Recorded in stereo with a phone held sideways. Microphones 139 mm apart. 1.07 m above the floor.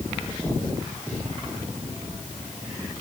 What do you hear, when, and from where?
Only background noise.